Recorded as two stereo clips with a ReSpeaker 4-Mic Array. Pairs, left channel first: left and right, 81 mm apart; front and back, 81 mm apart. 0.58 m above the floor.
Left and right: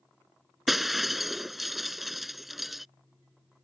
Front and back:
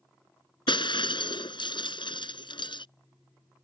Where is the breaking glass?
Straight ahead.